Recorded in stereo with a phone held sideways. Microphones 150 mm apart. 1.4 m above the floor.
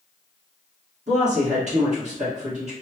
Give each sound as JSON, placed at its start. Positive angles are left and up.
{"t": 1.1, "sound": "a woman speaking", "side_deg": -50, "distance_m": 1.7}